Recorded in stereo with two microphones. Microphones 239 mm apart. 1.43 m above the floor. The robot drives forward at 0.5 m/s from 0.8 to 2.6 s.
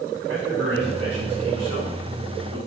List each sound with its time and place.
0.3 s a man speaking: 75° right (ahead or behind), 2.5 m; by 2.6 s 60° right (ahead or behind), 3 m